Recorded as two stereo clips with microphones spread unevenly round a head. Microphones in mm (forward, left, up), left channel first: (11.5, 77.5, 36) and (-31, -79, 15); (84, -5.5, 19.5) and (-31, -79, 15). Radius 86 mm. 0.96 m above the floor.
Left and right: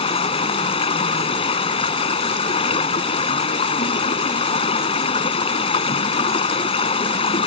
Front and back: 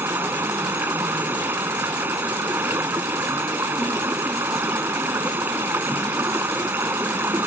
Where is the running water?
135° left.